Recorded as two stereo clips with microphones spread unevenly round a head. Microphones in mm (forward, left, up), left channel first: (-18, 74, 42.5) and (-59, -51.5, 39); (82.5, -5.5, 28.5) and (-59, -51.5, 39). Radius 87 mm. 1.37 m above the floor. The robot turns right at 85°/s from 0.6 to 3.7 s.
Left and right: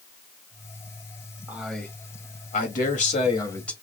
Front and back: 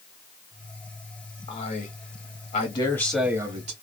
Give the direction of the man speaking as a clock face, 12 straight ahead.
1 o'clock.